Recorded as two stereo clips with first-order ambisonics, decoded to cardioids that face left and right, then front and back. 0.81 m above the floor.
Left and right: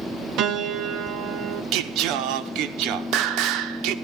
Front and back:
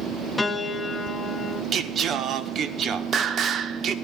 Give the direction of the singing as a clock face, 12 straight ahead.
4 o'clock.